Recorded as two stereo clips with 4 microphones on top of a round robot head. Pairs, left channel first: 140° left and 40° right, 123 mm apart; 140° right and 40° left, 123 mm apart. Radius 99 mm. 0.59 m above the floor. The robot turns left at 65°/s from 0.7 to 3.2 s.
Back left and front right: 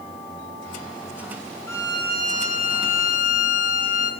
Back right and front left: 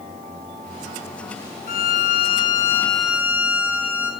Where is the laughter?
I don't hear laughter.